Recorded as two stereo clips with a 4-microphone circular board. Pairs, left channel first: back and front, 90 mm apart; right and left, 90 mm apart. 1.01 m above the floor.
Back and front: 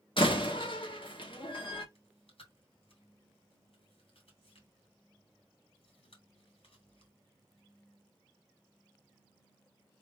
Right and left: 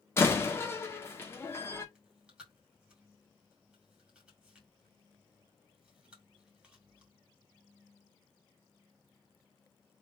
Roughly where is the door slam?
Behind right.